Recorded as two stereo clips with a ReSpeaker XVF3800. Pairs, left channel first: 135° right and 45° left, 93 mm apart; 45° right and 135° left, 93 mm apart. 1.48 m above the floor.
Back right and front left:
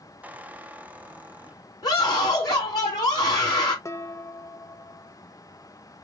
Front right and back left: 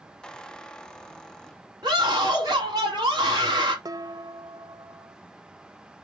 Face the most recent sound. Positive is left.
turn(degrees=170)